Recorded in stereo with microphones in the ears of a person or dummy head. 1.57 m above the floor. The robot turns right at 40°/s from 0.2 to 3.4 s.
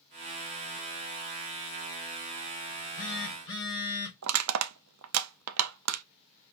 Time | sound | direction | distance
2.7 | a phone buzzing | 45° left (ahead or behind) | 2.5 m
4.2 | crushing | 80° right | 0.6 m